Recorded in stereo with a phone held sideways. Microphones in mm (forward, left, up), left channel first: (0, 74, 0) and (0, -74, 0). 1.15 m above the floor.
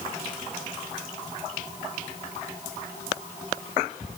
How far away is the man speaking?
No man speaking in this recording.